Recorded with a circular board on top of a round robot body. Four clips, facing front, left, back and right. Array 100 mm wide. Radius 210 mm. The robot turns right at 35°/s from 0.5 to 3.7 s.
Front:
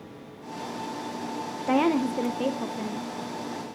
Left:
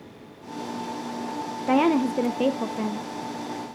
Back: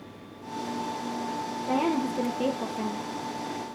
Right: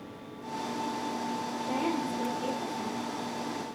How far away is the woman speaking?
About 1.0 m.